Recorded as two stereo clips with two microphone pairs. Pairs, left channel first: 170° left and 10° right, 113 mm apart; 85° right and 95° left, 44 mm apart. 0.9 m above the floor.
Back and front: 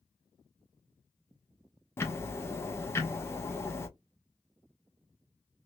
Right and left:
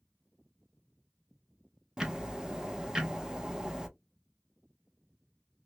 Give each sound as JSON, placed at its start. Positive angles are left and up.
{"t": 2.0, "sound": "ticking", "azimuth_deg": 150, "distance_m": 0.7}